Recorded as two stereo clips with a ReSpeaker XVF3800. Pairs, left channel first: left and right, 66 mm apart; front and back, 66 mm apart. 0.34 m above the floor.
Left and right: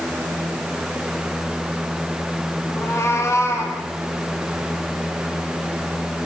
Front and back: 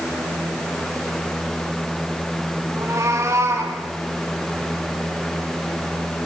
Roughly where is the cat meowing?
Behind left.